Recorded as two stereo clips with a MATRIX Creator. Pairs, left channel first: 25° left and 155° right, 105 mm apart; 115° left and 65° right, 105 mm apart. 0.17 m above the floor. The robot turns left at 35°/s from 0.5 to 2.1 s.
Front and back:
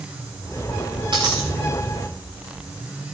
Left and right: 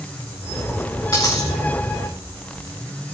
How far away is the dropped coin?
About 8 m.